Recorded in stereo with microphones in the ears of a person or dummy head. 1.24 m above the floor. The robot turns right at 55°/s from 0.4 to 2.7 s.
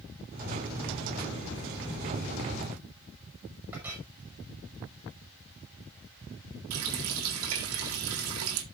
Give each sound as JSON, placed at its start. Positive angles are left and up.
{"t": 3.7, "sound": "a clink", "side_deg": -5, "distance_m": 5.0}
{"t": 6.7, "sound": "a running tap", "side_deg": -80, "distance_m": 2.0}